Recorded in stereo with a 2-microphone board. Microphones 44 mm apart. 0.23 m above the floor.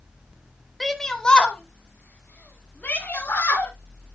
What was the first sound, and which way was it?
A shout, centre (ahead or behind).